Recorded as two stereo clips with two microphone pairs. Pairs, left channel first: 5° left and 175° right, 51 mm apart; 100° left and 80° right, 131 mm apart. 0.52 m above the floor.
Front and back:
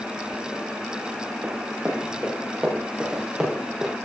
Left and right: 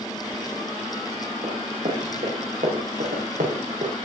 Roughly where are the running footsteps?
Behind right.